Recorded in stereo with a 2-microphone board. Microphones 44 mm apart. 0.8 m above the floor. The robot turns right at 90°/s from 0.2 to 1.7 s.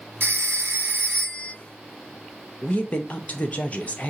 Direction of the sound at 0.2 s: 110° right.